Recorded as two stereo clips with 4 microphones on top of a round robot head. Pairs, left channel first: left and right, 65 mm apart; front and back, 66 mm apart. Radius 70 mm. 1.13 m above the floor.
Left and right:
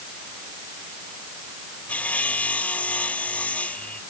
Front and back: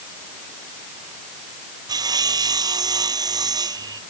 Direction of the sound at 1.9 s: 165° left.